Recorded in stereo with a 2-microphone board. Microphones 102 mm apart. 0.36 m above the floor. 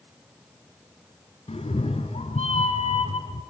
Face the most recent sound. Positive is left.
turn(degrees=90)